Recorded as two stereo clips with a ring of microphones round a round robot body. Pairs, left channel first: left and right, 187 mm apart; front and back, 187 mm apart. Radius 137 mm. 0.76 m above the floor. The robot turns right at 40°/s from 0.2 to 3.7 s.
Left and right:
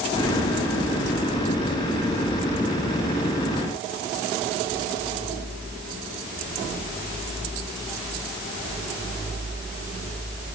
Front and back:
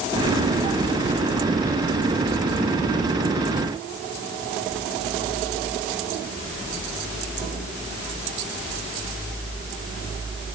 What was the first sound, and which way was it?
Only background noise.